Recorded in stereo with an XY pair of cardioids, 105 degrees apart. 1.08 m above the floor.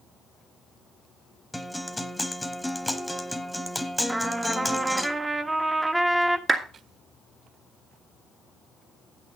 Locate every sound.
1.5 s a guitar: straight ahead, 1.0 m
4.1 s a trumpet: 20° right, 0.9 m
6.5 s a clap: 25° right, 2 m